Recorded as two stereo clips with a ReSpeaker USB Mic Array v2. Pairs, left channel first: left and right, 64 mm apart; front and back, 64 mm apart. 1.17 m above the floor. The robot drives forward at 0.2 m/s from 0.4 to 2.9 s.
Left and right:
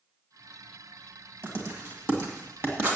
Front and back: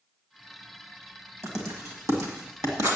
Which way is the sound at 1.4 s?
145° right.